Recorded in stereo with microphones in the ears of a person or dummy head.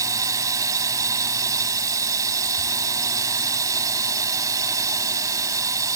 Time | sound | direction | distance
0.0 | a drone | 20° right (ahead or behind) | ?